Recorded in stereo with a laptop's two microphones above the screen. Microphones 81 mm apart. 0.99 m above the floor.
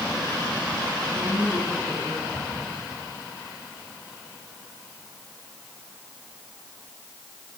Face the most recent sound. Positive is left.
turn(degrees=15)  # may be behind; listen again after turning